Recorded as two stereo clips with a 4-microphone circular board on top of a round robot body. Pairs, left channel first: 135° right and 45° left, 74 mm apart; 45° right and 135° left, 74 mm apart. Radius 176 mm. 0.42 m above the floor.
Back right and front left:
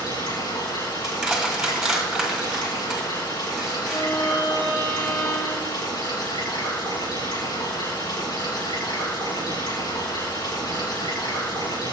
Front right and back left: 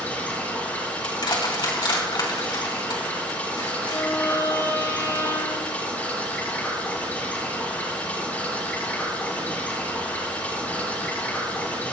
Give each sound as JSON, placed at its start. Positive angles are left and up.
{"t": 0.0, "sound": "running water", "azimuth_deg": -110, "distance_m": 8.0}
{"t": 1.0, "sound": "crushing", "azimuth_deg": -40, "distance_m": 4.0}
{"t": 3.9, "sound": "a violin", "azimuth_deg": -90, "distance_m": 9.0}